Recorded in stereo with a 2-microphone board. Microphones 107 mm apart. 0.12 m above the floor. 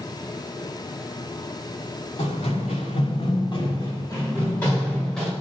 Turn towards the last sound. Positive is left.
turn(degrees=5)  # may be behind; listen again after turning